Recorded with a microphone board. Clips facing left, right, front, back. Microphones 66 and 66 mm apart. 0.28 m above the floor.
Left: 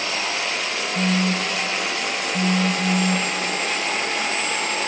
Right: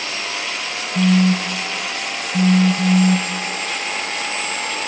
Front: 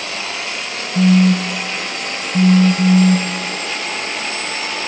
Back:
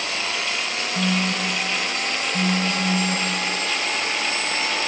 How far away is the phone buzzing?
About 1.3 m.